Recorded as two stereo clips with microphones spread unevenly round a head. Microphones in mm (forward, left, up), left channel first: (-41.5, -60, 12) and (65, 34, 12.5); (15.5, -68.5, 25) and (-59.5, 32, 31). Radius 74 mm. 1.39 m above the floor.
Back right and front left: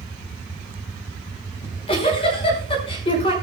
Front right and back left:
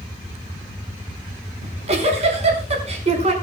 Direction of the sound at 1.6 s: 165° left.